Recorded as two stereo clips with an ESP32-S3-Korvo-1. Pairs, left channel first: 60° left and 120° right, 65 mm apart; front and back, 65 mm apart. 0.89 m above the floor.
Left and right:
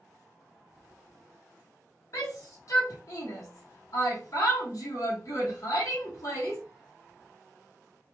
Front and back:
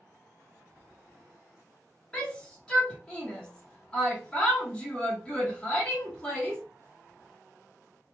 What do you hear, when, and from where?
2.1 s a shout: 75° left, 0.9 m